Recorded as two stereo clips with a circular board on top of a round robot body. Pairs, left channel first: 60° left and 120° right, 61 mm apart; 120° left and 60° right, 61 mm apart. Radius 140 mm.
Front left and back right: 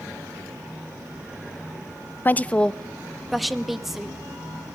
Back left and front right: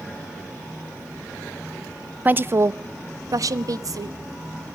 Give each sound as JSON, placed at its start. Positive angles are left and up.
{"t": 2.2, "sound": "a woman speaking", "azimuth_deg": 0, "distance_m": 0.5}